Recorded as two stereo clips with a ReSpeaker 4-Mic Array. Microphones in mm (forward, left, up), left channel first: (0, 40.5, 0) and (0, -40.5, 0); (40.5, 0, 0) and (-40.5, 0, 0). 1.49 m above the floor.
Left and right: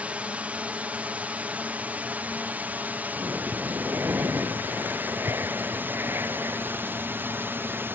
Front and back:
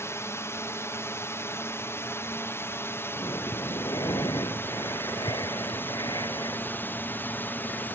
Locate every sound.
0.0 s a drone: 30° right; by 8.0 s 45° right
3.2 s breathing: 30° right